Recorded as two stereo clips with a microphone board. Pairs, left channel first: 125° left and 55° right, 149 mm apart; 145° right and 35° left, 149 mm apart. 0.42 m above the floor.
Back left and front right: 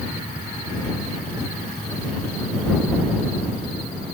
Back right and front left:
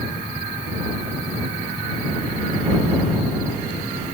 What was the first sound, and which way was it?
Only background noise.